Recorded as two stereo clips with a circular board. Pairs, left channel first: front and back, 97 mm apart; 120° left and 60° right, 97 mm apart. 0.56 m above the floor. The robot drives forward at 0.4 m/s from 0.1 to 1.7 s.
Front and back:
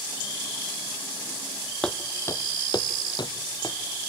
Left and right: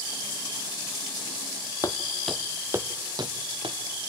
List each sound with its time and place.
1.8 s footsteps: 80° left, 0.8 m; by 3.8 s 35° right, 1.4 m